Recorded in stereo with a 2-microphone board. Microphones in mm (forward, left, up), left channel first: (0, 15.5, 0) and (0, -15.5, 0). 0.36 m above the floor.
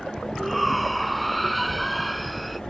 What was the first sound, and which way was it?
A shout, centre (ahead or behind).